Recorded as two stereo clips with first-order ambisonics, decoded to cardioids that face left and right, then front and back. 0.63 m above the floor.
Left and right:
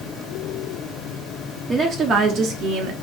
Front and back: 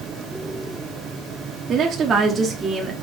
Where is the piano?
No piano in this recording.